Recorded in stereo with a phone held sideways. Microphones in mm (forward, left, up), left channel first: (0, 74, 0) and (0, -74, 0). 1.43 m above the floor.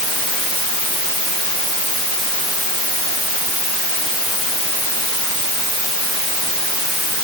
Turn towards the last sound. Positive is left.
No sound to turn to.